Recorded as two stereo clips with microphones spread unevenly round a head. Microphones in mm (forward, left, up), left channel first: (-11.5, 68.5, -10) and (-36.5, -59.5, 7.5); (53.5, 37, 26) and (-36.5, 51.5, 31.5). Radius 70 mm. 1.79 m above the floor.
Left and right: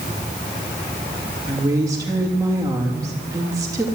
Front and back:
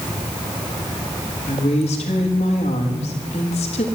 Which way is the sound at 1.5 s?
30° right.